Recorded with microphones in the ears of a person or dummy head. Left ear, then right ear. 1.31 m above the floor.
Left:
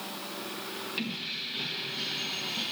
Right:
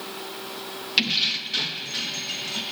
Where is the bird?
No bird in this recording.